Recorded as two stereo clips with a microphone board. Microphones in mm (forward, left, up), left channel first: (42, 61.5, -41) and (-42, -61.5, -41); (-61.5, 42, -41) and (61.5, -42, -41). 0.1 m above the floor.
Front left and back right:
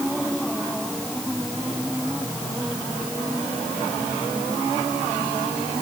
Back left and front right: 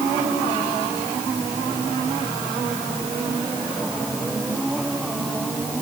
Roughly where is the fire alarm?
No fire alarm in this recording.